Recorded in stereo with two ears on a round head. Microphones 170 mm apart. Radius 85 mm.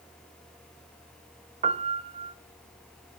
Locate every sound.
1.6 s a piano: 30° right (ahead or behind), 0.5 m